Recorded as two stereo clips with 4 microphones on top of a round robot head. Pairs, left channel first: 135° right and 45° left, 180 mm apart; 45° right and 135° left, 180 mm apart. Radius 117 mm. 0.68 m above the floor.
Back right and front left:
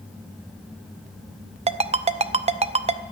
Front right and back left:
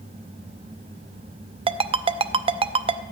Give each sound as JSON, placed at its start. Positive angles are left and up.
{"t": 1.7, "sound": "a ringtone", "azimuth_deg": 85, "distance_m": 0.6}